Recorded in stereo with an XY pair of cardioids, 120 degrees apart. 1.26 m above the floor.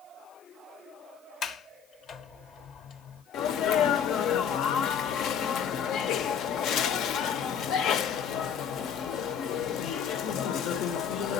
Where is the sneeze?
70° left, 0.6 m.